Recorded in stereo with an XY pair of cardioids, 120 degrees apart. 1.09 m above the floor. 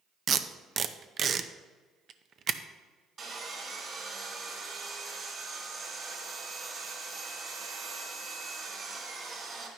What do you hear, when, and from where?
0.3 s tape being pulled: 45° right, 0.6 m
3.2 s sawing: 35° right, 3 m